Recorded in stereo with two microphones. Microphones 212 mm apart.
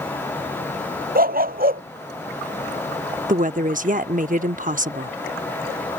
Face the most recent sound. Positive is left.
turn(degrees=-40)  # may be behind; listen again after turning